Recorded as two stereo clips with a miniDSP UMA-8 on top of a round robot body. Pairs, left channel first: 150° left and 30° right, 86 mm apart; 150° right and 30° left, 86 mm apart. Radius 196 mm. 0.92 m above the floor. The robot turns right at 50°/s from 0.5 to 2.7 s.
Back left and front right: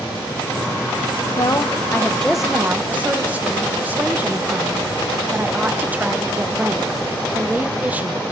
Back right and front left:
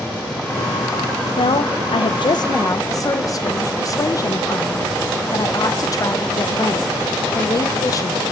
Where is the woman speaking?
170° right, 0.7 m; by 8.3 s 100° right, 0.7 m.